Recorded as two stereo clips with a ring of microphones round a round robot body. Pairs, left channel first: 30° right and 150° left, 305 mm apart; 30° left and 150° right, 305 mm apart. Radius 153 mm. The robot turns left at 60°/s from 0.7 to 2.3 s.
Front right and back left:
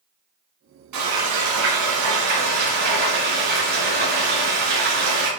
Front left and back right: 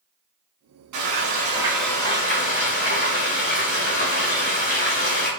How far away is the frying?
About 6.5 m.